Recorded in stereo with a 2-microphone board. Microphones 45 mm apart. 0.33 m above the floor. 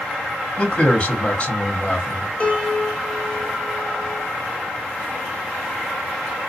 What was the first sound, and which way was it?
A man speaking, 30° left (ahead or behind).